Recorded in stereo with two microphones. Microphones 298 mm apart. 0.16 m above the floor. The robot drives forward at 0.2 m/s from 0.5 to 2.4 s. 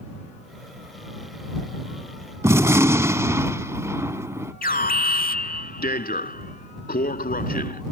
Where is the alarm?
35° left (ahead or behind).